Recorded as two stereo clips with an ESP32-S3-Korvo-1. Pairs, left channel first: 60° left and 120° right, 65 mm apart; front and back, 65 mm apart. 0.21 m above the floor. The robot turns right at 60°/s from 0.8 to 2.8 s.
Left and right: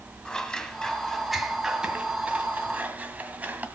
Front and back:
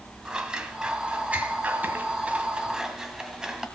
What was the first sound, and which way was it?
Scissors, 125° left.